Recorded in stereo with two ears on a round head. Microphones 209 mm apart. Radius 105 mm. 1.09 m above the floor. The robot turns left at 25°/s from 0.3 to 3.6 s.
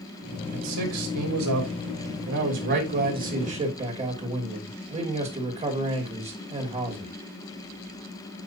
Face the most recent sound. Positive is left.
turn(degrees=-150)